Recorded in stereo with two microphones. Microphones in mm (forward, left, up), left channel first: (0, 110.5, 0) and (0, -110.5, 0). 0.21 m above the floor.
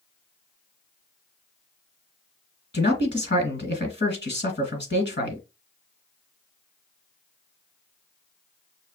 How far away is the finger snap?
No finger snap in this recording.